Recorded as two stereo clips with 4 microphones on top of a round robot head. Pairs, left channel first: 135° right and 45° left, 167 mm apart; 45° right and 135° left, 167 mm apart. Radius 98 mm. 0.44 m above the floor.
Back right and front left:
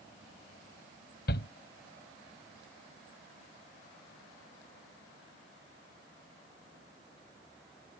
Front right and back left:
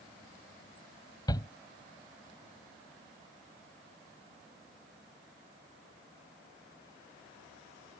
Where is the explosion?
I don't hear an explosion.